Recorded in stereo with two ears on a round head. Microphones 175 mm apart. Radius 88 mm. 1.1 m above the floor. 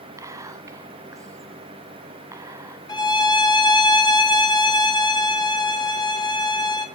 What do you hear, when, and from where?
0.2 s whispering: 15° right (ahead or behind), 0.7 m
2.9 s a violin: 20° left (ahead or behind), 1.8 m